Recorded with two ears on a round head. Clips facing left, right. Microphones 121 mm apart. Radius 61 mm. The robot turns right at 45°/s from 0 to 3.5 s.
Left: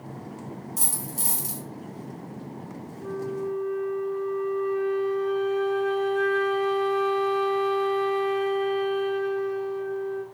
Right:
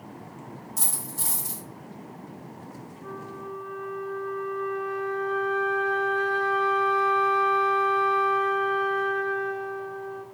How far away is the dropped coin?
About 2 m.